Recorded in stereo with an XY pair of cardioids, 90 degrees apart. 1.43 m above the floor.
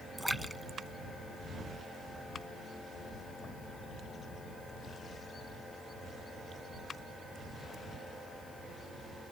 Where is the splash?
Straight ahead.